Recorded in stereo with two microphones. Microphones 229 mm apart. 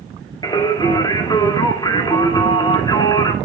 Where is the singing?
20° left (ahead or behind), 2 m.